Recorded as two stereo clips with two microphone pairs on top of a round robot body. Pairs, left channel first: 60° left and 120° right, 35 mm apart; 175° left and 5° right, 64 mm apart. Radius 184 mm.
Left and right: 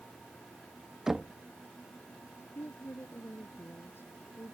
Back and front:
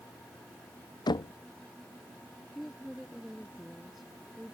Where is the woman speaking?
80° left.